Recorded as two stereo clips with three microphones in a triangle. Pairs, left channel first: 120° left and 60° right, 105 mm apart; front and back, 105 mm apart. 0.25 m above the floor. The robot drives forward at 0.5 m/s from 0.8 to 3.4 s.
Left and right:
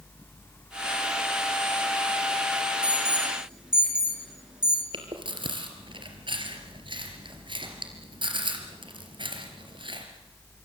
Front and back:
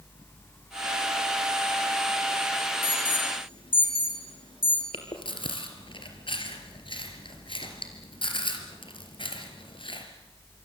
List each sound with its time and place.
2.8 s an alarm: 20° left, 5 m
4.9 s chewing: 30° right, 3.5 m